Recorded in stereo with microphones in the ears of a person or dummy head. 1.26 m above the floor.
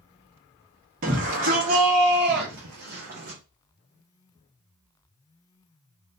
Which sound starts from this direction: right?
A shout, at 1.0 s.